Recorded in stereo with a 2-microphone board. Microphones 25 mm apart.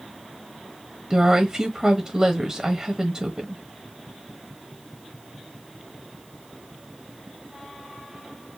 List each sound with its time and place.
1.1 s a woman speaking: 25° right (ahead or behind), 1.0 m